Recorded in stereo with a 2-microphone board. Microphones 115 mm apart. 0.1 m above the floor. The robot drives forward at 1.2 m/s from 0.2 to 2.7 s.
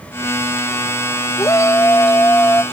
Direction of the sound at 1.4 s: 25° left (ahead or behind).